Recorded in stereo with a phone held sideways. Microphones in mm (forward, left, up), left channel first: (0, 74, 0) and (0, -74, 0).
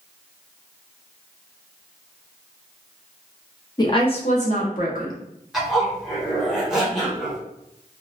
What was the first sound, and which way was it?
A woman speaking, 25° left (ahead or behind).